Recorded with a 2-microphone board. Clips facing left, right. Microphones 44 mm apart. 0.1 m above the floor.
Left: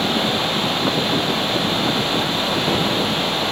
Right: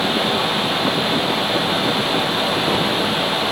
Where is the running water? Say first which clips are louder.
Right 1 dB; 5° right (ahead or behind), 2 m.